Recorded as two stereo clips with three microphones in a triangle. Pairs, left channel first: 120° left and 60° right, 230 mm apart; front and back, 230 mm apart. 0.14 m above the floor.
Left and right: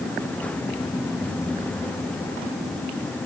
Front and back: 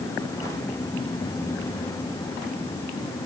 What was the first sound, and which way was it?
Only background noise.